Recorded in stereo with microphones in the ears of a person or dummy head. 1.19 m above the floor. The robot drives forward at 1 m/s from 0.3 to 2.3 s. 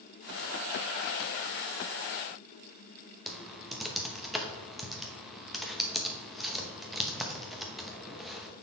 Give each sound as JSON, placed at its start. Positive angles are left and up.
{"t": 3.3, "sound": "typing on a keyboard", "side_deg": 5, "distance_m": 0.9}